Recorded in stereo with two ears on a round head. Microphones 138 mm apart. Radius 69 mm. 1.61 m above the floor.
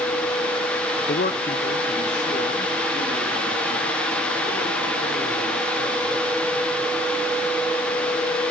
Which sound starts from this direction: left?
A man speaking, at 1.1 s.